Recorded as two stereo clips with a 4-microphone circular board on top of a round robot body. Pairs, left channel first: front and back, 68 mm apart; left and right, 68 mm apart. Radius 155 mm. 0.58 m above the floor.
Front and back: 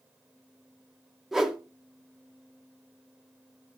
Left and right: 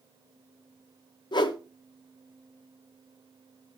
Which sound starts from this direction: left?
A whoosh, at 1.3 s.